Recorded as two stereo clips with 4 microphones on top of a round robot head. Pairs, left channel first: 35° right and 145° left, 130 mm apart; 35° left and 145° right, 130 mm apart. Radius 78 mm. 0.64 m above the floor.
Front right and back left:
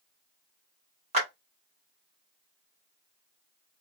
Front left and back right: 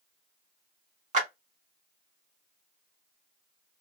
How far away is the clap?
About 1.3 m.